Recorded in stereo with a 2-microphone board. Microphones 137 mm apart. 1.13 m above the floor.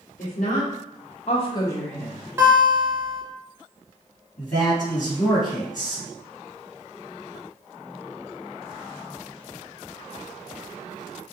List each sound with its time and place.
0.2 s a woman speaking: 70° left (ahead or behind), 1.1 m; by 2.2 s centre (ahead or behind), 0.8 m
2.4 s a guitar: 20° right (ahead or behind), 0.6 m
4.4 s a man speaking: 70° left (ahead or behind), 1.7 m